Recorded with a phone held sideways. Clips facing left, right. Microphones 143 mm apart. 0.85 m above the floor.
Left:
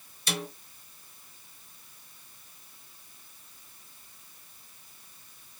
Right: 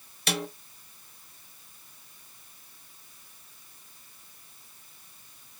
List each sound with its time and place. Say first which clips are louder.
0.3 s a snare drum: right 3 dB; 65° right (ahead or behind), 1.1 m